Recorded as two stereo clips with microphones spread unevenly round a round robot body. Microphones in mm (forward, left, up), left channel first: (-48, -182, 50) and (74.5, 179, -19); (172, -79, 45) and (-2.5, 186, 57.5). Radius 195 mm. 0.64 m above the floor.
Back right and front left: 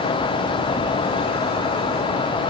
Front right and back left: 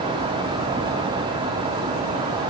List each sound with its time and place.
Only background noise.